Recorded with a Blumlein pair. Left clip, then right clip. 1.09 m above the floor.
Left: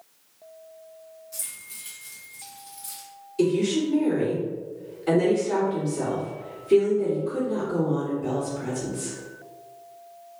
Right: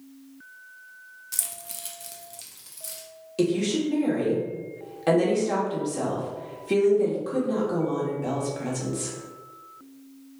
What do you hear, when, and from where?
1.3 s keys jangling: 55° right, 0.5 m; by 3.1 s 25° right, 1.3 m
3.4 s a woman speaking: 35° right, 1.6 m